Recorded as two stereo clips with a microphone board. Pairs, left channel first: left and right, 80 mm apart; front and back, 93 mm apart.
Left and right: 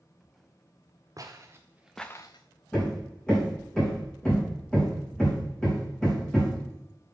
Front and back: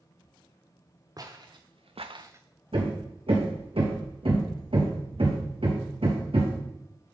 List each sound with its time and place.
1.2 s footsteps: 135° right, 1.6 m; by 2.4 s 110° left, 0.8 m
2.7 s hammering: 170° left, 2.5 m